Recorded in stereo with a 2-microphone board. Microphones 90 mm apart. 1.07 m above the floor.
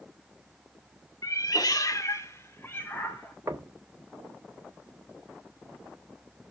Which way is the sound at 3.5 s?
35° right (ahead or behind).